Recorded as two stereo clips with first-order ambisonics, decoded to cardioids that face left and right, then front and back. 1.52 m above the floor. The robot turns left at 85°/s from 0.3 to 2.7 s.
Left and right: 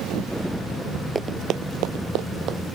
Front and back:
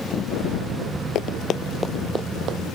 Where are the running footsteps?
20° right; by 2.6 s 140° right.